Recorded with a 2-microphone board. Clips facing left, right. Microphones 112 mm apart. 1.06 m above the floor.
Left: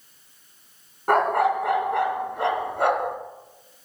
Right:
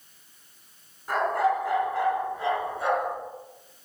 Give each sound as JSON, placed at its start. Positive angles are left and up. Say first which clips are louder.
{"t": 1.1, "sound": "a dog barking", "louder": "left 4 dB", "side_deg": 65, "distance_m": 2.5}